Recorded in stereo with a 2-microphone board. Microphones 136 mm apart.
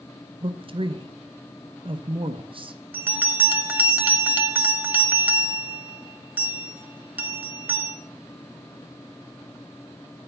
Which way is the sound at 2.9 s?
15° right (ahead or behind).